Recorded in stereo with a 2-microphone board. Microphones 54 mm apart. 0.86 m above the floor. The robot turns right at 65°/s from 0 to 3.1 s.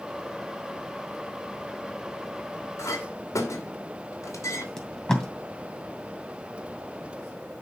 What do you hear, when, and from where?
2.8 s a clink: 70° left (ahead or behind), 2 m; by 4.7 s 85° left, 2 m
4.8 s tape being pulled: 10° left (ahead or behind), 2.5 m